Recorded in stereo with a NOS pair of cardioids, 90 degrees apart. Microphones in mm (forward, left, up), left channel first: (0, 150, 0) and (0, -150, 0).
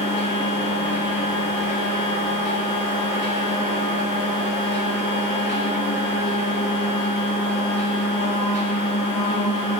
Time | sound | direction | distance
0.0 | a machine running | 35° left | 1.8 m